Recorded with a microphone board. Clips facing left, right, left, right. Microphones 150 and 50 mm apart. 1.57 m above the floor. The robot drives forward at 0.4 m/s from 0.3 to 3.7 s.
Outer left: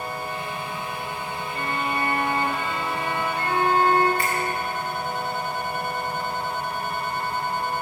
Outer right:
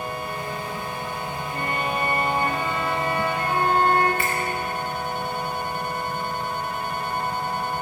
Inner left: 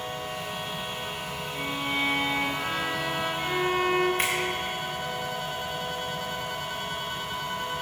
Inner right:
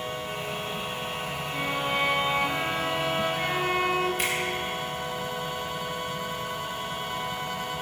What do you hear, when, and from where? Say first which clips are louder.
1.5 s a violin: outer right 1 dB, inner right 2 dB; 25° right (ahead or behind), 3 m; by 4.1 s 20° right (ahead or behind), 4 m
4.2 s a finger snap: even, inner left 1 dB; 40° left (ahead or behind), 4 m